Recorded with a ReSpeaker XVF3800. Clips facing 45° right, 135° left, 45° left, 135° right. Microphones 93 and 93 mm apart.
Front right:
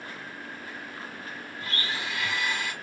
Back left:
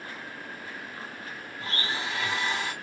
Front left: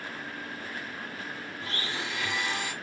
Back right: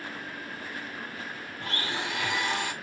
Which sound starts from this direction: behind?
A blender, at 1.6 s.